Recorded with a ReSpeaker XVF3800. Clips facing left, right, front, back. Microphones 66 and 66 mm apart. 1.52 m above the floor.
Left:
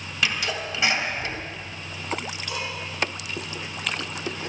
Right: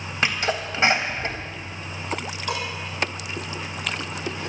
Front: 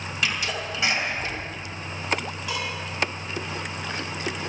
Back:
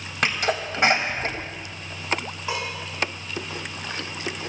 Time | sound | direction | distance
0.2 | a sneeze | 145° right | 2.5 m
2.5 | dishes clattering | 120° right | 9.5 m